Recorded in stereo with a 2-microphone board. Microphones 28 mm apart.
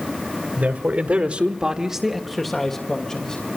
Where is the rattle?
No rattle in this recording.